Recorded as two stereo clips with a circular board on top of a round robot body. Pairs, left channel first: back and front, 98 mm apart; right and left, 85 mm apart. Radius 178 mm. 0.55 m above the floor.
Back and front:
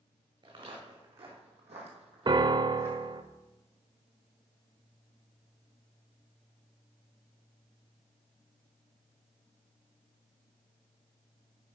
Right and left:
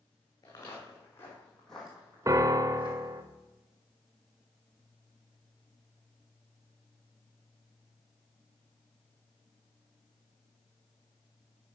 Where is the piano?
40° left, 0.6 m.